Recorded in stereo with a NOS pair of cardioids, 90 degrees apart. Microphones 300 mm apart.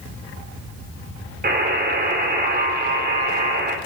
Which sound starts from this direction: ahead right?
A buzzer, at 1.4 s.